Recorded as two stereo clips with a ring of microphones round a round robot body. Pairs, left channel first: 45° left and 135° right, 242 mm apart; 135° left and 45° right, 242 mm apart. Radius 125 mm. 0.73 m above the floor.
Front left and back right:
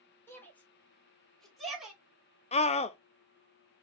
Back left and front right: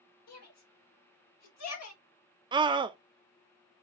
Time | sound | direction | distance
0.3 | a shout | 125° left | 3 m
2.5 | a scream | 10° left | 0.5 m